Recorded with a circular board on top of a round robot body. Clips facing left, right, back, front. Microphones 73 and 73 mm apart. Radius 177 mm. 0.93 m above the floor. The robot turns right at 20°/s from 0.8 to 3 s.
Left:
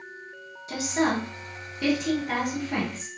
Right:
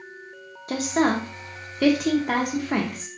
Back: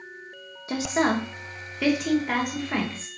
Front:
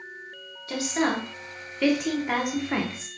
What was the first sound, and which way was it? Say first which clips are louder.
A woman speaking: right 3 dB, back 2 dB; 115° right.